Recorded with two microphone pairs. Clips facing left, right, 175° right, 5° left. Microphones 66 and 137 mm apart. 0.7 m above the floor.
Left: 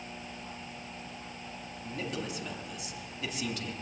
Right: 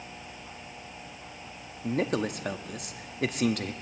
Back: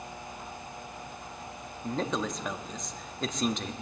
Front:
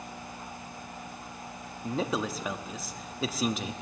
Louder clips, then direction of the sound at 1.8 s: Right 9 dB, front 1 dB; 80° right.